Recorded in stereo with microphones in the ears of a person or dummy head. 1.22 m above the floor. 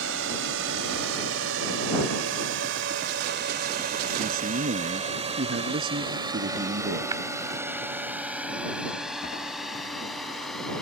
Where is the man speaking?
50° right (ahead or behind).